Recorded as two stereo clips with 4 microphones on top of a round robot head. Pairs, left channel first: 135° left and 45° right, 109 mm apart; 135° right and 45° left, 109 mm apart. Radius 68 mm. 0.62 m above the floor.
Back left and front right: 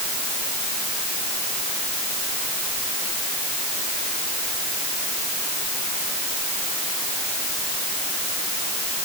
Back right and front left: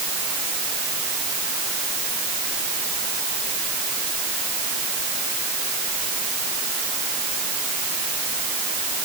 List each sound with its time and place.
Only background noise.